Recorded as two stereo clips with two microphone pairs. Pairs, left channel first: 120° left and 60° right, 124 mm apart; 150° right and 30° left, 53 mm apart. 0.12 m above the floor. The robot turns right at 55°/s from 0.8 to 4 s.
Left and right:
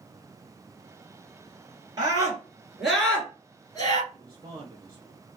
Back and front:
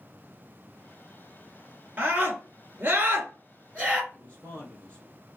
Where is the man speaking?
95° right, 1.4 m.